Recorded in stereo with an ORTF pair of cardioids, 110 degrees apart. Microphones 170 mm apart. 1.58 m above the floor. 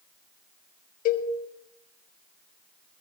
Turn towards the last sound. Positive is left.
turn(degrees=60)